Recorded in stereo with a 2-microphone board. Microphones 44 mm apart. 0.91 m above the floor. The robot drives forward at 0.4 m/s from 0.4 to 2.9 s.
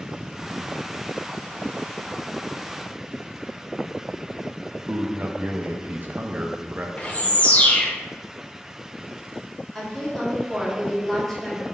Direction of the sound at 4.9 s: 45° right (ahead or behind).